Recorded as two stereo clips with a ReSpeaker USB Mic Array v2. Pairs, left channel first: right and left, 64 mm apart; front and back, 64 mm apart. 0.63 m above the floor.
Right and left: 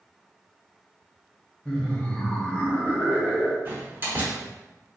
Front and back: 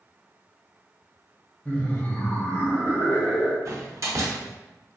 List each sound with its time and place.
1.6 s laughter: 40° right, 0.7 m
3.6 s a door slam: 145° left, 0.9 m